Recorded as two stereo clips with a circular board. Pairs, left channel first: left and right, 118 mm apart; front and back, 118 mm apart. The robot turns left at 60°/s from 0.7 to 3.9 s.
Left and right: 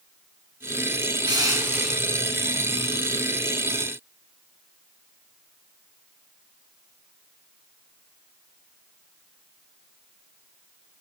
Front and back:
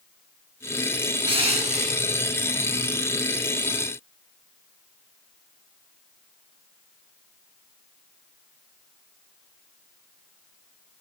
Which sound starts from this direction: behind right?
Crushing, at 1.2 s.